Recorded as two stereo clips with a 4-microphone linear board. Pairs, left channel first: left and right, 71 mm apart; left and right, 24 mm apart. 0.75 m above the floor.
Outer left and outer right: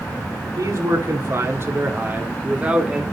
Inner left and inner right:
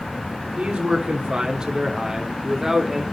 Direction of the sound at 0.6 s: 50° right (ahead or behind).